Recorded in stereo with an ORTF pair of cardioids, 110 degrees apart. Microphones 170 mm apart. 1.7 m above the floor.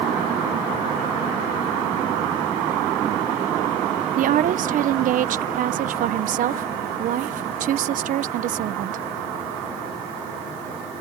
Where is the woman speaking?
60° right.